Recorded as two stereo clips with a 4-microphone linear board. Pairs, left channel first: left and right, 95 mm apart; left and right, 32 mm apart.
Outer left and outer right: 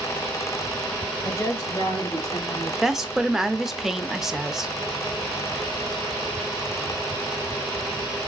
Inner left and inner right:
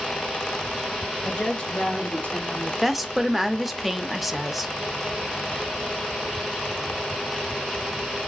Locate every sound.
1.2 s a woman speaking: 25° left (ahead or behind), 1.1 m; by 2.7 s 60° left (ahead or behind), 3 m
2.8 s a woman speaking: 5° right (ahead or behind), 0.6 m